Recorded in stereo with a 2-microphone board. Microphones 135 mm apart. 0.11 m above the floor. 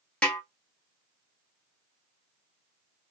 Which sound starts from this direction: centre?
A snare drum, at 0.2 s.